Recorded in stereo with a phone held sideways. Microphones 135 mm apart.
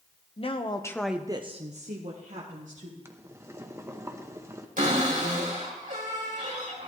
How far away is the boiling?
About 0.9 m.